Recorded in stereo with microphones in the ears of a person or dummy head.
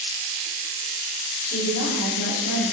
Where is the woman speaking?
55° left (ahead or behind), 7 m; by 2.6 s 65° left (ahead or behind), 8.5 m.